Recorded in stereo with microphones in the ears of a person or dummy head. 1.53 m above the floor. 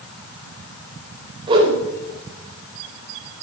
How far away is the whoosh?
About 4 m.